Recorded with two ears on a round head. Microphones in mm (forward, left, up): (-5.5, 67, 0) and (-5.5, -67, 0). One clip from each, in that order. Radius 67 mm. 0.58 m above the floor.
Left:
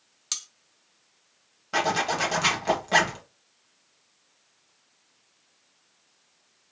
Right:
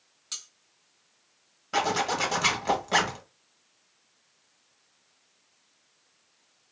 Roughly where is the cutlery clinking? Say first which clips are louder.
Left 6 dB; left.